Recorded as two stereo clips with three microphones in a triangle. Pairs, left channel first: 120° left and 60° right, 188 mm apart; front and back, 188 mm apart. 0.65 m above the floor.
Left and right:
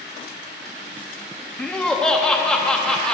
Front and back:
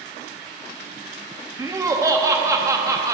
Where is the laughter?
160° right, 0.7 m.